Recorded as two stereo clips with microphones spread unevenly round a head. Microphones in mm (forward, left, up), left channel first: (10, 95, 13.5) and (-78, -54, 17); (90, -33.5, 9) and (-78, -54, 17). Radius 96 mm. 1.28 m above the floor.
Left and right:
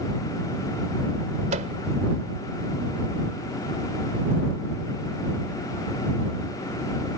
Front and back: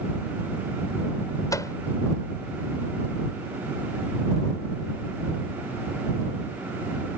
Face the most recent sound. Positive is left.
turn(degrees=-65)